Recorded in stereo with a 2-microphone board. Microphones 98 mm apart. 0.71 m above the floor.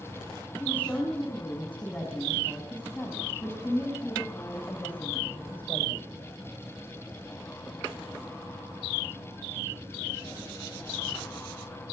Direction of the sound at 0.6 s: 15° left (ahead or behind).